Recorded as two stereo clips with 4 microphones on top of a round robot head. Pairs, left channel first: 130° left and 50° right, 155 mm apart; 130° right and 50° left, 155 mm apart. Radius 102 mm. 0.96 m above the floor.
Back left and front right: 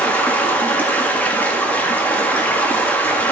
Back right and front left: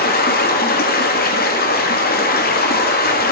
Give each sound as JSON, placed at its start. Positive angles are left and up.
{"t": 0.0, "sound": "running water", "azimuth_deg": -150, "distance_m": 1.7}